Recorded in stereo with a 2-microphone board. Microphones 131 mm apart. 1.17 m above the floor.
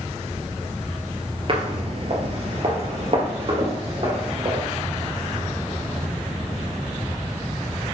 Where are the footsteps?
45° right (ahead or behind), 1.5 m; by 4.6 s 40° right (ahead or behind), 3 m.